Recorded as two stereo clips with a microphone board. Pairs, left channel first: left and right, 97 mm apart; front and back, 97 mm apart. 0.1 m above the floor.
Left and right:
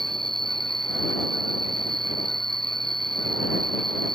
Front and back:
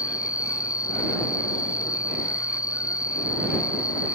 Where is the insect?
50° right.